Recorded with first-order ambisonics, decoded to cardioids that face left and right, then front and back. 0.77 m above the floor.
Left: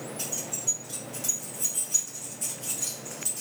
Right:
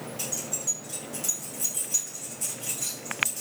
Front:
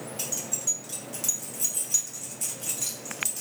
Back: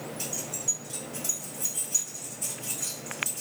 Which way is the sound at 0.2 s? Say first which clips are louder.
Right 1 dB, front 3 dB; 10° right.